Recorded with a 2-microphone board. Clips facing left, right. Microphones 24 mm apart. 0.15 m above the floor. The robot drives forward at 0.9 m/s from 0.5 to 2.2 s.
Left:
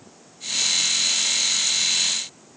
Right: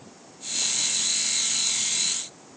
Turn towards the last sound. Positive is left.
No sound to turn to.